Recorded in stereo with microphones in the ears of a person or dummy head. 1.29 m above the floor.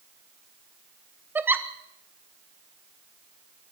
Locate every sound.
1.4 s a giggle: 5° right (ahead or behind), 0.9 m